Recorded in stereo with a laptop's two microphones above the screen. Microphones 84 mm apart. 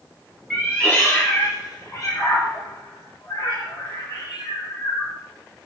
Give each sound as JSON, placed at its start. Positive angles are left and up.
{"t": 0.5, "sound": "a cat meowing", "side_deg": 10, "distance_m": 1.0}